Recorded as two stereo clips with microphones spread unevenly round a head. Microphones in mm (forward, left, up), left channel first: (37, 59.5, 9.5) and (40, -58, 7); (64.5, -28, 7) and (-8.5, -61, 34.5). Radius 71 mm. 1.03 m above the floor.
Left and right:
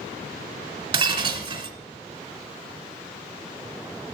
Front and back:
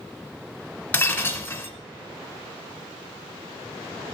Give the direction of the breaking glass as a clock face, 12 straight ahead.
2 o'clock.